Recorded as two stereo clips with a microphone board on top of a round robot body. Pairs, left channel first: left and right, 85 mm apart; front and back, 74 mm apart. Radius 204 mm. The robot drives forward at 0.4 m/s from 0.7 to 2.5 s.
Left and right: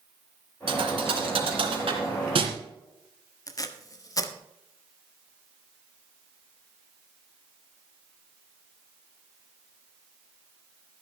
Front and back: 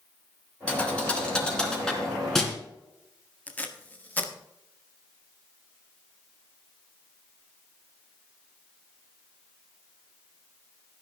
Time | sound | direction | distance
0.7 | a thud | 75° right | 3 m
3.5 | tape being pulled | 60° left | 1.8 m